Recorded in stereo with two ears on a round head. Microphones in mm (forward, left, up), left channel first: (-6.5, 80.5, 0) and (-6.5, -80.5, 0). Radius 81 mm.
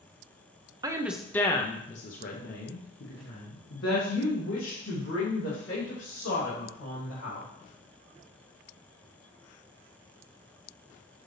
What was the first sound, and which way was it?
A woman speaking, 20° right (ahead or behind).